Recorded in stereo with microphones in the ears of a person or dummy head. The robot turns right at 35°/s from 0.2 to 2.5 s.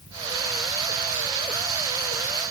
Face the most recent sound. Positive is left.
No sound to turn to.